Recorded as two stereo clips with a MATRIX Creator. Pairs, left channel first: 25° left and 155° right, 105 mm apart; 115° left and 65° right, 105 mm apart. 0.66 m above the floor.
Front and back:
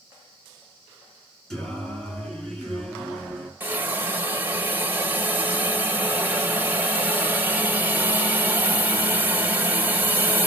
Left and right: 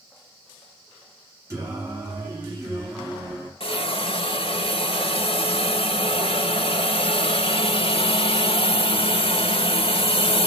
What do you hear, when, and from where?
1.5 s singing: 55° right, 1.3 m
3.6 s a hiss: 135° left, 0.6 m